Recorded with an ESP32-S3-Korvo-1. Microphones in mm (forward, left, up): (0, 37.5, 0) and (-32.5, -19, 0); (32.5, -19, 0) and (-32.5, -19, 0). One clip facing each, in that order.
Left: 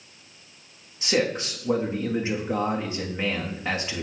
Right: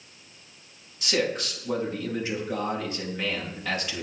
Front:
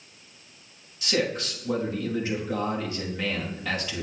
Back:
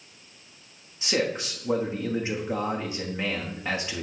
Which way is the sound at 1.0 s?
120° left.